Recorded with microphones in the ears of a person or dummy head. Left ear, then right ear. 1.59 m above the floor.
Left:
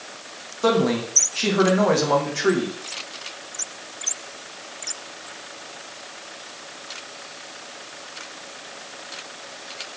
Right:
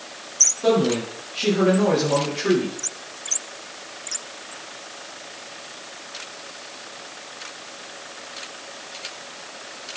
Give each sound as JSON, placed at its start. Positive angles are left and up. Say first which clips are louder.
{"t": 0.6, "sound": "a man speaking", "louder": "even", "side_deg": 50, "distance_m": 1.9}